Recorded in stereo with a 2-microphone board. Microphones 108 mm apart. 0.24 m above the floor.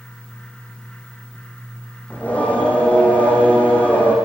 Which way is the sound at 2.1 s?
15° left (ahead or behind).